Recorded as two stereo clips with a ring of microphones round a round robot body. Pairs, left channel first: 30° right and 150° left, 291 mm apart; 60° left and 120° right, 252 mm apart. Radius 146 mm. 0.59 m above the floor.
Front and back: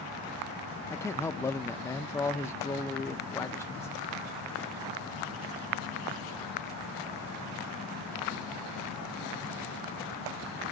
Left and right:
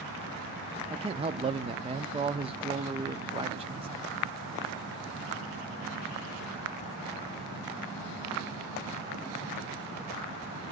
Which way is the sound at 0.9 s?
100° right.